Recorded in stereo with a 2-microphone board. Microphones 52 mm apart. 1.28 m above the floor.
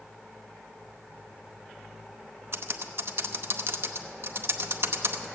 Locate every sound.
2.5 s typing on a keyboard: 60° right (ahead or behind), 0.8 m